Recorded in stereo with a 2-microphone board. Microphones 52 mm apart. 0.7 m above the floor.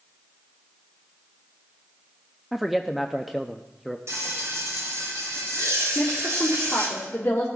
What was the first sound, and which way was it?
A man speaking, 5° right (ahead or behind).